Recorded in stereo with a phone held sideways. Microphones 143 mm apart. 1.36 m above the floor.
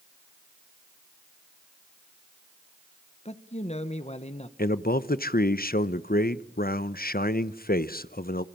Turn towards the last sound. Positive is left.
turn(degrees=85)